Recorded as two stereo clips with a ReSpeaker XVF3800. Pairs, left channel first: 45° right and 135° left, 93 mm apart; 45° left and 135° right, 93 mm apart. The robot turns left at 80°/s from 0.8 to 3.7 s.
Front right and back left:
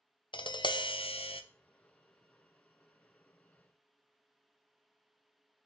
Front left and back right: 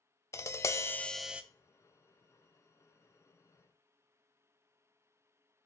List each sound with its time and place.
0.3 s tapping: 15° right, 0.5 m; by 1.4 s 60° right, 0.5 m